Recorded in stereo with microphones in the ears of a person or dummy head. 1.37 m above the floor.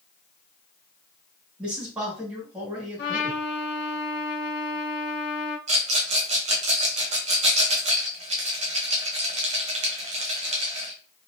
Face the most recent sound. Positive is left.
turn(degrees=-35)  # may be behind; listen again after turning